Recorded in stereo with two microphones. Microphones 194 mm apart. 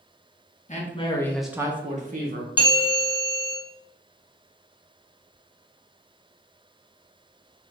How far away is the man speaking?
About 1.0 m.